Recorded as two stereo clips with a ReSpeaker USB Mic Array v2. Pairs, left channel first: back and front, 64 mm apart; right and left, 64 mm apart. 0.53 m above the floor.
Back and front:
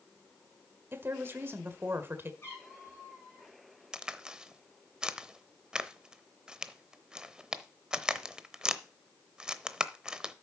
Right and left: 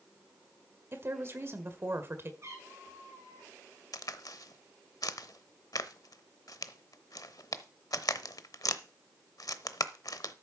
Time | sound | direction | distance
0.9 | a woman speaking | 45° left | 1.7 m
2.4 | a cat meowing | 130° left | 8 m
3.9 | a crack | 80° right | 0.7 m